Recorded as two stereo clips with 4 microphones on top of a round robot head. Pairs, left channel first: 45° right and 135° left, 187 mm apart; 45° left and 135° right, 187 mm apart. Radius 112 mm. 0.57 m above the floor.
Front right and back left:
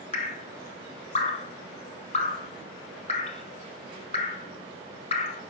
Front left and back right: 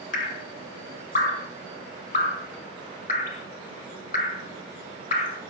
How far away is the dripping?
About 0.7 m.